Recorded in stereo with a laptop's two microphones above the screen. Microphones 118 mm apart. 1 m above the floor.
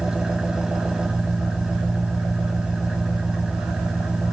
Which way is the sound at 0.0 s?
5° right (ahead or behind).